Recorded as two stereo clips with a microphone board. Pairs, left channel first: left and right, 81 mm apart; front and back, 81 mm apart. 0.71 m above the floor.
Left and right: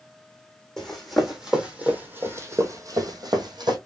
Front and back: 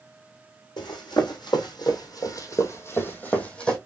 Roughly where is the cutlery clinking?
I don't hear cutlery clinking.